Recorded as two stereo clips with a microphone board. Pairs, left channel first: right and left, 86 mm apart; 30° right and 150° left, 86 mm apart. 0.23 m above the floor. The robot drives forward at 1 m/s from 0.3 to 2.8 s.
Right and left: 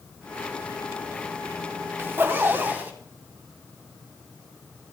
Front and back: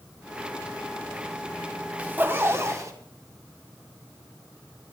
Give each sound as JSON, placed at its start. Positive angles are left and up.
{"t": 2.0, "sound": "a zipper", "azimuth_deg": 100, "distance_m": 1.5}